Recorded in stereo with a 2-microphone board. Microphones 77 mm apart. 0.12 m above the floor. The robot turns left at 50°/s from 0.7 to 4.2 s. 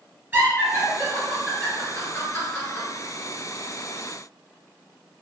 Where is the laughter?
20° right (ahead or behind), 1.9 m; by 2.9 s 30° left (ahead or behind), 1.9 m.